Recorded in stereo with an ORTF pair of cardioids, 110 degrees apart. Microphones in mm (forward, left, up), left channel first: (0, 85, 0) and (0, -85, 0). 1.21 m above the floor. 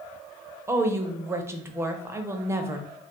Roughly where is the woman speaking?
Ahead.